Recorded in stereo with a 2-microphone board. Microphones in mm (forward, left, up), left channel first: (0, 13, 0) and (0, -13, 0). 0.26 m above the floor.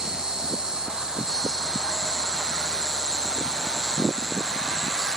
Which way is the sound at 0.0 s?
25° right (ahead or behind).